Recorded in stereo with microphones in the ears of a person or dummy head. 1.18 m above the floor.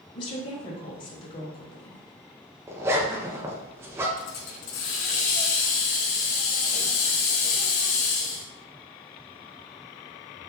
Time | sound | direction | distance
0.1 | a woman speaking | 30° left (ahead or behind) | 0.7 m
2.7 | a zipper | 10° right (ahead or behind) | 0.5 m
4.2 | a hiss | 45° left (ahead or behind) | 0.5 m